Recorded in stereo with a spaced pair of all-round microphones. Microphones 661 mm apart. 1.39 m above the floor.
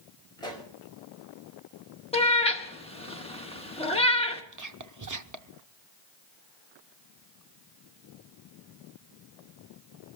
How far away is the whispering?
About 0.7 m.